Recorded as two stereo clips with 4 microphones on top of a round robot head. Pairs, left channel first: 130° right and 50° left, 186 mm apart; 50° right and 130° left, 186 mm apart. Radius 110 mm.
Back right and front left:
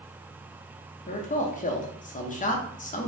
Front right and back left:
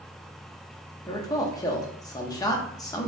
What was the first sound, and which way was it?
A man speaking, 115° right.